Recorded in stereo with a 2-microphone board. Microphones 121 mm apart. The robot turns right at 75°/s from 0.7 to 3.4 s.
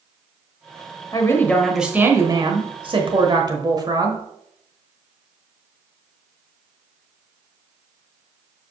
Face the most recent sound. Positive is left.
turn(degrees=-55)